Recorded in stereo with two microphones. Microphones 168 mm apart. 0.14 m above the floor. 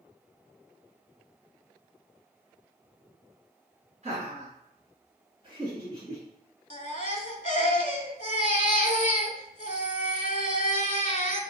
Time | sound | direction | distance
4.0 | laughter | 45° right (ahead or behind) | 1.7 m
6.7 | a baby crying | 45° left (ahead or behind) | 0.5 m